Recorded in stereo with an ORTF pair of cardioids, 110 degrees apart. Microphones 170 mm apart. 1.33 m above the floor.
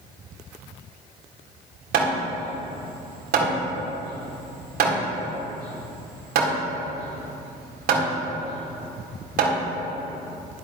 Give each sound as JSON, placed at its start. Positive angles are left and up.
{"t": 1.9, "sound": "hammering", "azimuth_deg": -65, "distance_m": 3.5}